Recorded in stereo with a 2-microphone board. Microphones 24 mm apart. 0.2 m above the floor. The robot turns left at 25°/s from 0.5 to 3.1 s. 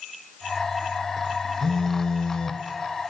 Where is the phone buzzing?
20° left (ahead or behind), 0.9 m; by 2.6 s 45° left (ahead or behind), 0.9 m.